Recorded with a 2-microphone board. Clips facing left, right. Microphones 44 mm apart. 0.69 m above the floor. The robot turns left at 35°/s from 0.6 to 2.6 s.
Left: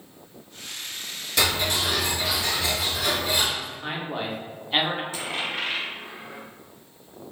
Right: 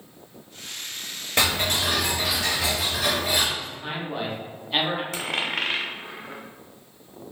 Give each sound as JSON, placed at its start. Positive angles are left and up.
{"t": 1.4, "sound": "ticking", "azimuth_deg": -45, "distance_m": 1.2}
{"t": 3.6, "sound": "a man speaking", "side_deg": 10, "distance_m": 0.8}
{"t": 5.1, "sound": "a dropped coin", "side_deg": -75, "distance_m": 0.7}